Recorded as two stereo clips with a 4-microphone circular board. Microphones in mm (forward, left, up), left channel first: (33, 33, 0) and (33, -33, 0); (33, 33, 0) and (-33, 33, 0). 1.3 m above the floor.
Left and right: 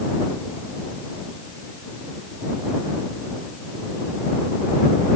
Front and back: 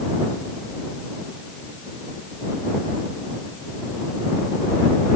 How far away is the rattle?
No rattle in this recording.